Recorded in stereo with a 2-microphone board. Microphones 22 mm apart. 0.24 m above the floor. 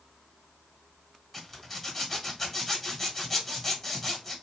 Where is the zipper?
Centre (ahead or behind), 1.5 m.